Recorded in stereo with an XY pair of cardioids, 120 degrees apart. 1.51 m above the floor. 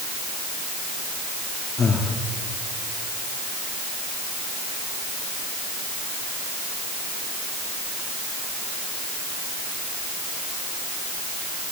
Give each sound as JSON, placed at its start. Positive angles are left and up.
{"t": 1.8, "sound": "breathing", "azimuth_deg": 30, "distance_m": 2.5}